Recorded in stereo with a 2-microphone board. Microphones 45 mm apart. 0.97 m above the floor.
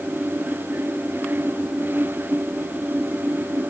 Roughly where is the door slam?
No door slam in this recording.